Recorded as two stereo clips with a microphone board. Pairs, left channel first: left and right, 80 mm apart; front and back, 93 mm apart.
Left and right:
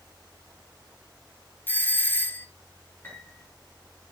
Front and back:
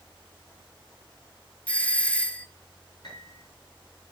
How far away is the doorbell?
About 0.5 m.